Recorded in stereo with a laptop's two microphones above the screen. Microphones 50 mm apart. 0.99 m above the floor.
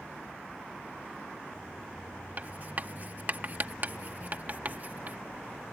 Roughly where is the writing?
Right.